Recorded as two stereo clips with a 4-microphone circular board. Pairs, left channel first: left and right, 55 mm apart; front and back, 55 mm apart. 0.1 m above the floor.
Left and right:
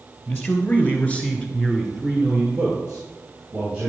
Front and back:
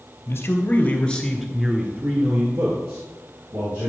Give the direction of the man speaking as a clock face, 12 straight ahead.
11 o'clock.